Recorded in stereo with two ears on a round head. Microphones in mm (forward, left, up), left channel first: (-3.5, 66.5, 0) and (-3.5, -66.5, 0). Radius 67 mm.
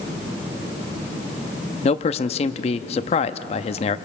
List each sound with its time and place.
1.8 s a man speaking: 40° left (ahead or behind), 0.7 m